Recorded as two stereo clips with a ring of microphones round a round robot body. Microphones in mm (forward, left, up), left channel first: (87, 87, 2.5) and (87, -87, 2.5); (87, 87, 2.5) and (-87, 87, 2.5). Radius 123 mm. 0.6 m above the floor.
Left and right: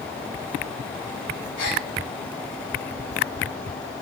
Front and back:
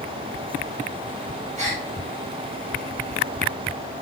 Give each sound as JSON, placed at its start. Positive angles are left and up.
{"t": 1.6, "sound": "a gasp", "azimuth_deg": 135, "distance_m": 4.0}